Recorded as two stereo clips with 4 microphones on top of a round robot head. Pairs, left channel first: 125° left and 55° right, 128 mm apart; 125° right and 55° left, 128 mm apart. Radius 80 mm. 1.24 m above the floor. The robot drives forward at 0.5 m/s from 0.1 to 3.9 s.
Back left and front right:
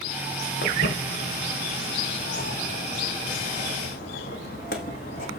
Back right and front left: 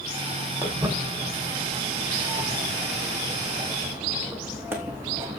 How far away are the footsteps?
About 4.5 m.